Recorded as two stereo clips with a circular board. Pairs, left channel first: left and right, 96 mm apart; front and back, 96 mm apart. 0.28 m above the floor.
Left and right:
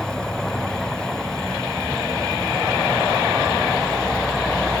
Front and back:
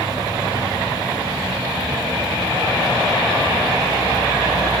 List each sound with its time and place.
0.0 s an insect: 170° left, 0.8 m